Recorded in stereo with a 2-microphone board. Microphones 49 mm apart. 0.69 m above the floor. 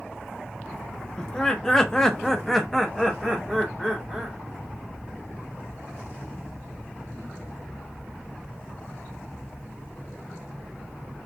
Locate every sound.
1.2 s laughter: 15° left (ahead or behind), 0.8 m; by 4.4 s 5° right (ahead or behind), 1.1 m